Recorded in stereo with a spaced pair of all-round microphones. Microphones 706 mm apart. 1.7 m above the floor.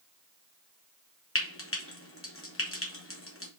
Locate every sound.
1.4 s frying: 20° left (ahead or behind), 1.1 m